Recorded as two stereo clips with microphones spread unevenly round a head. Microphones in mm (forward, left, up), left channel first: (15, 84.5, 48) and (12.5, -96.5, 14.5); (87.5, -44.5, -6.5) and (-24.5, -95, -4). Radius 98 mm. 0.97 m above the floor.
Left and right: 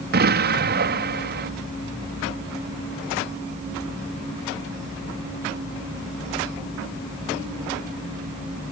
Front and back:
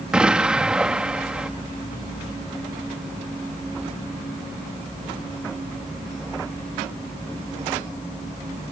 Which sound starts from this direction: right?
An explosion, at 0.1 s.